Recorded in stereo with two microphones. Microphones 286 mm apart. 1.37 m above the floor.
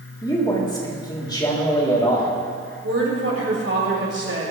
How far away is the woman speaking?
About 5.5 m.